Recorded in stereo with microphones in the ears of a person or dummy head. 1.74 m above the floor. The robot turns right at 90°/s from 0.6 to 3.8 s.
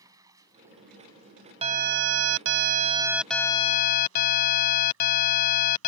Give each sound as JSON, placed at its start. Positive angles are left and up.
{"t": 0.0, "sound": "running water", "azimuth_deg": -20}
{"t": 1.6, "sound": "an alarm", "azimuth_deg": -150}